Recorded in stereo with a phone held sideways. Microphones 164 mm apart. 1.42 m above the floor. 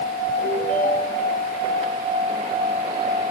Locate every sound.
0.4 s a ringtone: 55° left (ahead or behind), 6.5 m